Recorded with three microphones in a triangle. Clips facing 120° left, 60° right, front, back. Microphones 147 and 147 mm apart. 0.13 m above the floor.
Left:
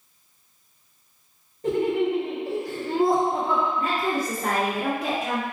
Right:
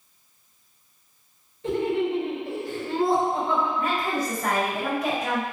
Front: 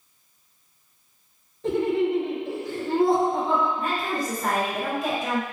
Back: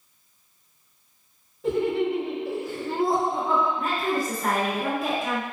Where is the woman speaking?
95° left, 1.9 m.